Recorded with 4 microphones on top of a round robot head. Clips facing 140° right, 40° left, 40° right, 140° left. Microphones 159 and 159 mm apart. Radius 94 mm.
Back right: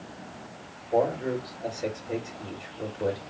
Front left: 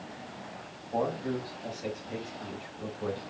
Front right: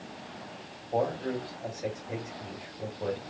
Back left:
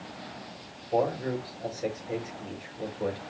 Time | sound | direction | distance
0.9 | a man speaking | 165° right | 3.5 m